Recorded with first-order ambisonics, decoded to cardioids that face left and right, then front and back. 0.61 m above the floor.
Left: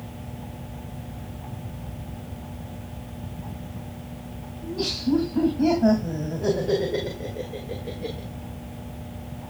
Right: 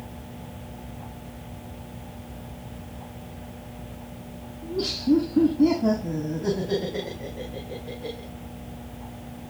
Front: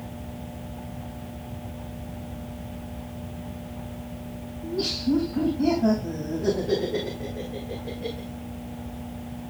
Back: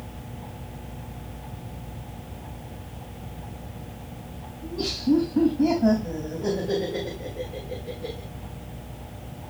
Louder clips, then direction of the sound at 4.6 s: Right 1 dB, even; 85° left.